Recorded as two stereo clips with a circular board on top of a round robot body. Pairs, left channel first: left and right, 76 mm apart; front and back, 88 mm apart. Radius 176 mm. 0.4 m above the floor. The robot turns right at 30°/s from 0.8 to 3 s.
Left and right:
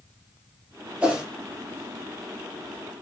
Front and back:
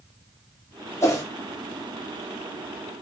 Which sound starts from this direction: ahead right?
A whoosh, at 1.0 s.